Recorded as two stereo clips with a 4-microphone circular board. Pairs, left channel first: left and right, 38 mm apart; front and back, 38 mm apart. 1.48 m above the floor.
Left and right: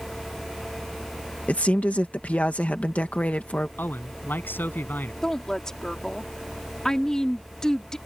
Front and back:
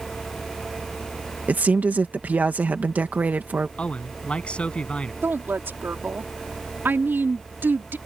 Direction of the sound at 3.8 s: 60° left.